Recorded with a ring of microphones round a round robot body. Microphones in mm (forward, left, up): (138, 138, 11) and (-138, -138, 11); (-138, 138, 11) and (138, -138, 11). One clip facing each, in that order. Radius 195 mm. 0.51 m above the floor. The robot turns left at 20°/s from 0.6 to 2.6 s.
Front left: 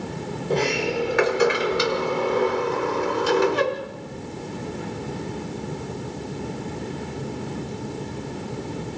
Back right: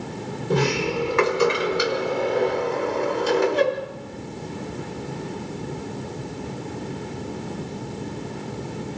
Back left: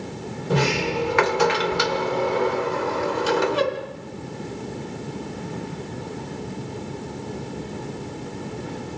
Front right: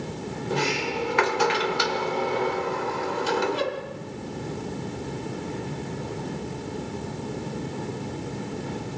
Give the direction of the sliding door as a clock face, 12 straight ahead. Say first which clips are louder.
Back right 1 dB, back left 5 dB; 7 o'clock.